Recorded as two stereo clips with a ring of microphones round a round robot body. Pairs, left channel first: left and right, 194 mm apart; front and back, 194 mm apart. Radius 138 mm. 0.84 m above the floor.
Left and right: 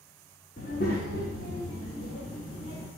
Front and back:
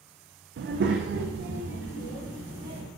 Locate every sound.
0.6 s a child speaking: 150° left, 0.8 m